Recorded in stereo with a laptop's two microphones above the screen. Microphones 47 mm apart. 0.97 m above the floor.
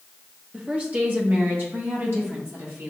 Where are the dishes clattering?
I don't hear dishes clattering.